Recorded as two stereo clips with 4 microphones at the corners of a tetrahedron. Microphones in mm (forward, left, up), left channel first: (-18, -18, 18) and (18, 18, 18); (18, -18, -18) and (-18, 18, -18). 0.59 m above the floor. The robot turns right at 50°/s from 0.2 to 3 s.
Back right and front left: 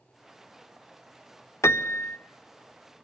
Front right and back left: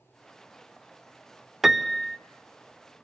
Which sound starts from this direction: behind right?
A piano, at 1.6 s.